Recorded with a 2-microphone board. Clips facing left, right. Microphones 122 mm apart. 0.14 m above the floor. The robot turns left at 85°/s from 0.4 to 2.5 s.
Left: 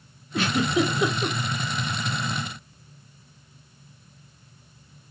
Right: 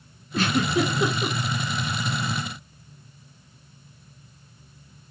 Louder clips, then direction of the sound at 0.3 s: Even; 35° right (ahead or behind).